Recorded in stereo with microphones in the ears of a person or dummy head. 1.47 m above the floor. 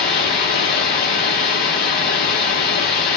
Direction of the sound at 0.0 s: 35° left (ahead or behind).